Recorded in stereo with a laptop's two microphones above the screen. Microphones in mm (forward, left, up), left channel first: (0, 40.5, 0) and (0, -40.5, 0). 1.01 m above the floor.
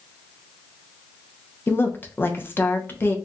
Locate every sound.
1.7 s a woman speaking: 25° left (ahead or behind), 0.7 m